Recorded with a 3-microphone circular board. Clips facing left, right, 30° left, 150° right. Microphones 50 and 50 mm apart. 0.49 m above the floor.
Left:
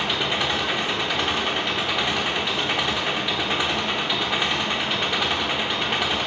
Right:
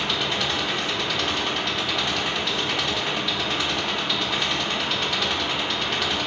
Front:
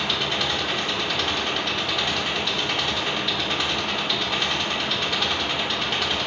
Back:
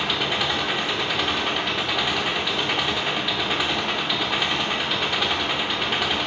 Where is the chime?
I don't hear a chime.